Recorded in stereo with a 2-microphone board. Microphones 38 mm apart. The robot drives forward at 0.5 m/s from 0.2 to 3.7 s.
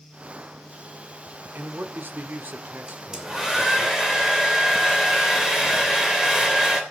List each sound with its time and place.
1.6 s a man speaking: 60° right (ahead or behind), 1.3 m; by 3.9 s 40° right (ahead or behind), 1.8 m
2.9 s a hair dryer: 15° right (ahead or behind), 2.5 m